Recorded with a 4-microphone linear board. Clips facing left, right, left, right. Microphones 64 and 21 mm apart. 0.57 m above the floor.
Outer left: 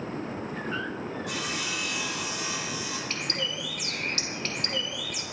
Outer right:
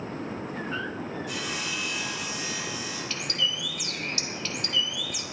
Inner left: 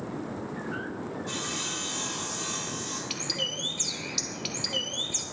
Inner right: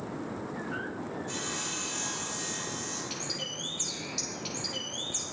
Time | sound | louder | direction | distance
1.3 | sawing | even, inner left 4 dB | 80° left | 5 m
3.1 | a bird | outer right 3 dB, inner left 8 dB | 45° left (ahead or behind) | 1.4 m